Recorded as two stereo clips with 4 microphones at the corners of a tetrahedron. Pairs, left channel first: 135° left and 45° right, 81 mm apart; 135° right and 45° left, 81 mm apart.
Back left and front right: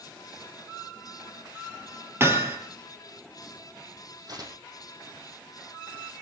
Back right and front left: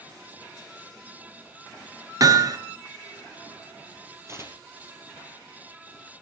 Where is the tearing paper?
10° right, 5 m.